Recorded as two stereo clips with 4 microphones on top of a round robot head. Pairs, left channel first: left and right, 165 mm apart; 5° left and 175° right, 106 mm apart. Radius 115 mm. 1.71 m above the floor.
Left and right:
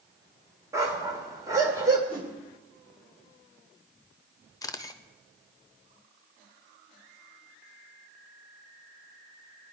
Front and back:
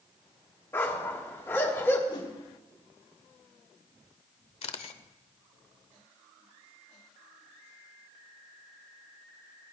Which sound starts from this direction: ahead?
A camera shutter, at 4.6 s.